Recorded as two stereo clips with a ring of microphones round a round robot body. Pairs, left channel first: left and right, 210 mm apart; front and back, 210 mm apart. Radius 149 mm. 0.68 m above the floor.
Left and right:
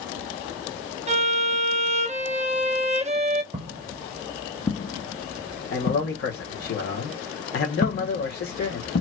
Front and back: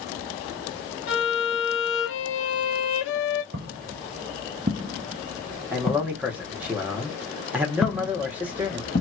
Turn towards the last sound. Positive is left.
turn(degrees=55)